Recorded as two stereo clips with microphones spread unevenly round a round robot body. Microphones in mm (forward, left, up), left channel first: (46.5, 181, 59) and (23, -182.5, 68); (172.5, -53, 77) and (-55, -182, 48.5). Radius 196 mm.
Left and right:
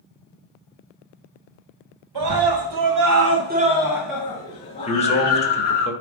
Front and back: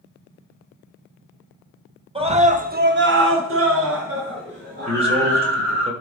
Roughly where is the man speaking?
Behind left.